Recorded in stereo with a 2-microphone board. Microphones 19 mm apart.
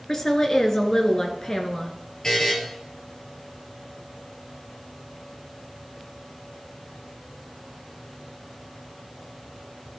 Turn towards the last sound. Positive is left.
turn(degrees=35)  # may be behind; listen again after turning